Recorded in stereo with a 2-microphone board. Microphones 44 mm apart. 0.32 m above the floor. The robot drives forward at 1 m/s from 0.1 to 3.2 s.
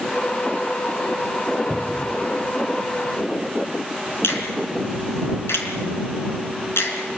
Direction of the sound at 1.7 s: 40° left (ahead or behind).